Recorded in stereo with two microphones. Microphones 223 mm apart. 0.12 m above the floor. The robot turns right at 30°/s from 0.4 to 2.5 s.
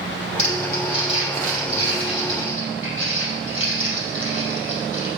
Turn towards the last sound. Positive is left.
turn(degrees=60)  # may be behind; listen again after turning